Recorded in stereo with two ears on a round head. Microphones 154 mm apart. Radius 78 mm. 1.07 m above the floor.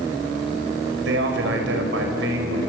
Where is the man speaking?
70° right (ahead or behind), 6 m.